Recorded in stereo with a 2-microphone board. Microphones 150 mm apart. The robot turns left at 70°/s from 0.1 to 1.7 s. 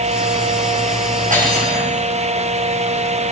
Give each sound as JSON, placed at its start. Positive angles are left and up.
{"t": 1.3, "sound": "cutlery clinking", "side_deg": -55, "distance_m": 6.5}